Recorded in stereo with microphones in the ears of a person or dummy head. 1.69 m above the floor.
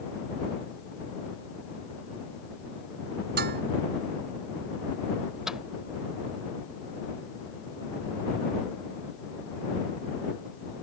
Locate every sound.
3.4 s dishes clattering: 55° right (ahead or behind)
5.5 s a microwave: 10° right (ahead or behind)